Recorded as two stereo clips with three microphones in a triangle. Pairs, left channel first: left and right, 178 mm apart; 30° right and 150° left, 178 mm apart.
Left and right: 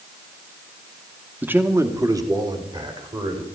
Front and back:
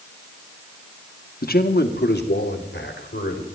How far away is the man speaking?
About 1.1 m.